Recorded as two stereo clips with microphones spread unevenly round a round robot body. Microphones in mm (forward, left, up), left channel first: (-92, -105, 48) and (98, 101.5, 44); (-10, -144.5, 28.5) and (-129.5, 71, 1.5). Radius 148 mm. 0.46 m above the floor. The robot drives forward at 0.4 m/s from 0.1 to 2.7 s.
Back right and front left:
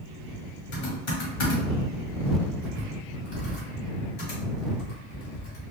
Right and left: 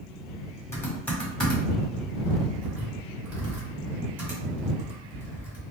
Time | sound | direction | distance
0.7 | typing on a keyboard | 145° right | 1.2 m